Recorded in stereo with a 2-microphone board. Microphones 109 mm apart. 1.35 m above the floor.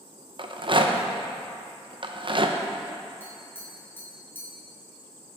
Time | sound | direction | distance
0.4 | a rattle | 50° right (ahead or behind) | 0.6 m
3.2 | tapping | 20° left (ahead or behind) | 3 m